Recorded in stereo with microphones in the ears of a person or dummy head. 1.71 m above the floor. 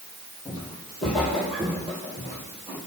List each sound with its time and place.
0.5 s footsteps: 10° left (ahead or behind), 3 m; by 2.8 s 10° right (ahead or behind), 4.5 m